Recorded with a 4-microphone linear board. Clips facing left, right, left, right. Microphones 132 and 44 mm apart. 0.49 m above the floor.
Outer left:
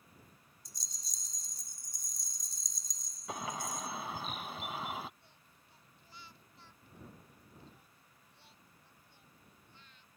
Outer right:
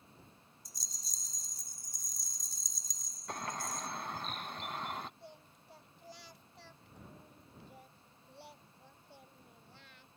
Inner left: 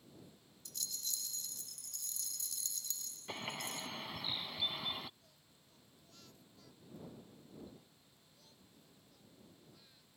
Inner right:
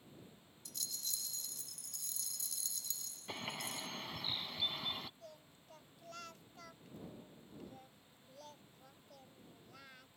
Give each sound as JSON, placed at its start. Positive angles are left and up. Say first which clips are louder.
{"t": 0.7, "sound": "a rattle", "louder": "even, inner left 1 dB", "side_deg": 0}
{"t": 3.3, "sound": "a bird", "louder": "outer left 1 dB, inner left 1 dB", "side_deg": 5}
{"t": 5.2, "sound": "singing", "louder": "outer right 11 dB, inner right 11 dB", "side_deg": -80}